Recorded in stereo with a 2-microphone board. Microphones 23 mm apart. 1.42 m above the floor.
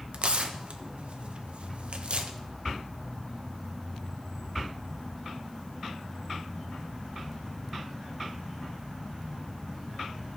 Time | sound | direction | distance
0.1 | tearing paper | 60° right (ahead or behind) | 0.7 m